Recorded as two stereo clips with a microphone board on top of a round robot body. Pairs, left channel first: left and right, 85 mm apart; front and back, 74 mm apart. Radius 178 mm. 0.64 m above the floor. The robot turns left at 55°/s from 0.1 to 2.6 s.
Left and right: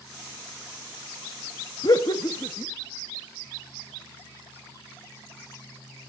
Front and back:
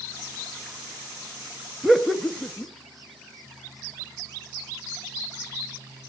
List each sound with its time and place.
1.8 s laughter: 100° left, 1.6 m; by 2.7 s 55° left, 1.6 m